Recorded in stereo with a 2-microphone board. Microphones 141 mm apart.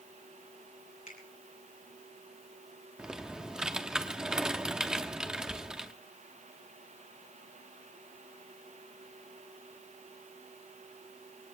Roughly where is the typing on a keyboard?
Centre.